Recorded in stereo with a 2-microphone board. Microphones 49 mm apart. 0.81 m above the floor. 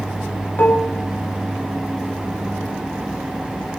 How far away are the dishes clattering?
About 0.9 m.